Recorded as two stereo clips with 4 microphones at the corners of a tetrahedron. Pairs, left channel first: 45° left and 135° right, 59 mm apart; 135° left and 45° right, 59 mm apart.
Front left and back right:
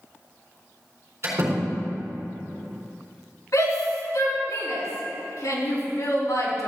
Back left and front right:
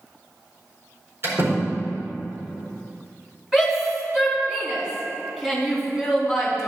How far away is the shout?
About 4 m.